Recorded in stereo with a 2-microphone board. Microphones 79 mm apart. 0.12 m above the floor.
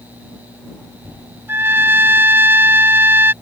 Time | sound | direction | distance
1.5 | a trumpet | 30° right (ahead or behind) | ?